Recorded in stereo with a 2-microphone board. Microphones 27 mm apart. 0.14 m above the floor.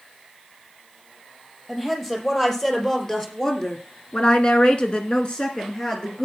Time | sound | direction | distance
1.7 | a woman speaking | 10° left (ahead or behind) | 5 m